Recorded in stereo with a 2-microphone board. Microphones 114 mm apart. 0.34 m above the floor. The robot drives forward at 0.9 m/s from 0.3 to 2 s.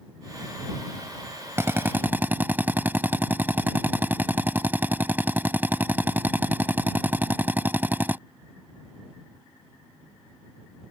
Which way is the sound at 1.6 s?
25° right (ahead or behind).